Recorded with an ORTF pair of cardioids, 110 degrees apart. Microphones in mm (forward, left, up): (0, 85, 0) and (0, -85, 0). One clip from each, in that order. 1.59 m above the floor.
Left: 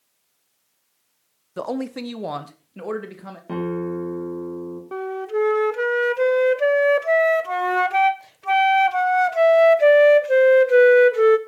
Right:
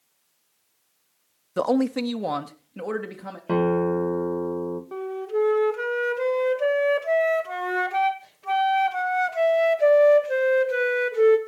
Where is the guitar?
30° right, 2.5 m.